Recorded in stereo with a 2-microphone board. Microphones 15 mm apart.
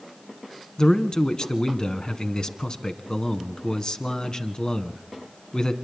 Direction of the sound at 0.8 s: 55° left (ahead or behind).